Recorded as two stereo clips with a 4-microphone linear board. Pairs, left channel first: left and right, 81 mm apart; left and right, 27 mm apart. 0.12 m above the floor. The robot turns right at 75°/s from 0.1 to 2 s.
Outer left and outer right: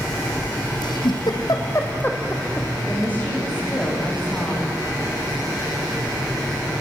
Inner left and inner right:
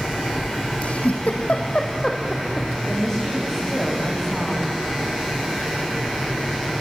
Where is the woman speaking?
25° left (ahead or behind), 8 m.